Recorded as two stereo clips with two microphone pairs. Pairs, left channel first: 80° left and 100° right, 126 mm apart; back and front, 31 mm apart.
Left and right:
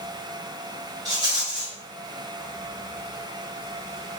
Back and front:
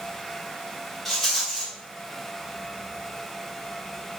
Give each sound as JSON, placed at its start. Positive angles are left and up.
{"t": 1.1, "sound": "a rattle", "azimuth_deg": -100, "distance_m": 1.3}